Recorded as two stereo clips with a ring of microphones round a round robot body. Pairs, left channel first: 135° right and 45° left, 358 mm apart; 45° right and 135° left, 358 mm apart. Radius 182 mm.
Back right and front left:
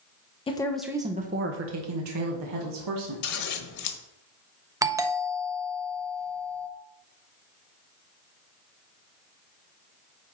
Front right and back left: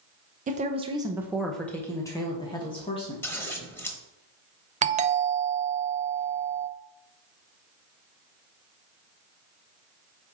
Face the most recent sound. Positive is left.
turn(degrees=110)